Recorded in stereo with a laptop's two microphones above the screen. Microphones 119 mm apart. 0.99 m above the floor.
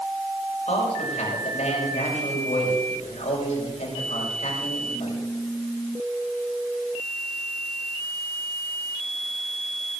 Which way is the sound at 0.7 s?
80° left.